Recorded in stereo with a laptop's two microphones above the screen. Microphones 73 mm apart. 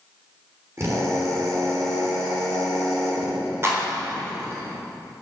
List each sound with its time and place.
0.8 s a drill: 40° right (ahead or behind), 3 m
3.6 s a clap: 35° right (ahead or behind), 3 m